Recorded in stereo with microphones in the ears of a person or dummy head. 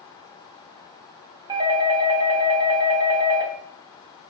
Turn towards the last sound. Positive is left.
turn(degrees=-20)  # may be behind; listen again after turning